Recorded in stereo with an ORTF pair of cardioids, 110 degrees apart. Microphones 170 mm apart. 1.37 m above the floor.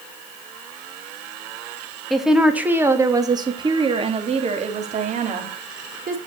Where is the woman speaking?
Straight ahead, 2.5 m; by 6.2 s 55° right, 4.5 m.